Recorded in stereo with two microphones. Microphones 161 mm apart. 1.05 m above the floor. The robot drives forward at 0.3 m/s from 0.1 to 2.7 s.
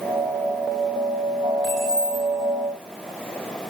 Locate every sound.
1.6 s keys jangling: 25° left (ahead or behind), 1.9 m